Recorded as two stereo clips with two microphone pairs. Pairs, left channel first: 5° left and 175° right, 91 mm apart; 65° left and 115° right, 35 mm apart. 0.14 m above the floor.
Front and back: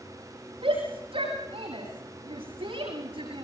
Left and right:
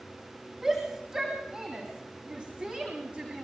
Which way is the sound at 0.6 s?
175° left.